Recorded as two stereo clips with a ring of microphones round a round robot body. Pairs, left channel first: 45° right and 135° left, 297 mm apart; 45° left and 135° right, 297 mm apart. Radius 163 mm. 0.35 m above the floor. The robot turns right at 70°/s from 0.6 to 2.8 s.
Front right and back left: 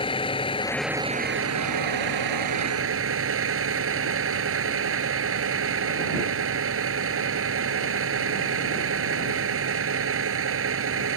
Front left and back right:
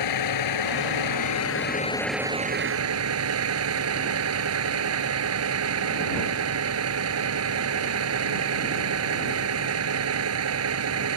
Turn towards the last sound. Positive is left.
turn(degrees=-175)